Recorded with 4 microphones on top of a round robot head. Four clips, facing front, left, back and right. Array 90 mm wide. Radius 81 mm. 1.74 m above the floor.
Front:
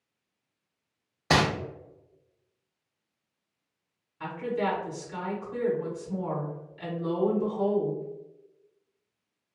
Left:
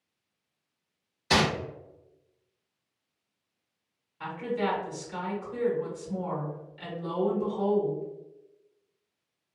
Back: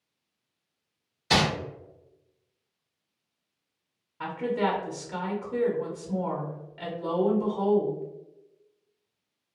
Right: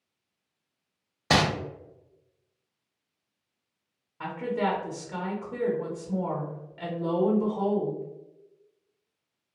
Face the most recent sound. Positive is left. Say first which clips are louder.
# right 2 dB, back 2 dB
turn(degrees=-140)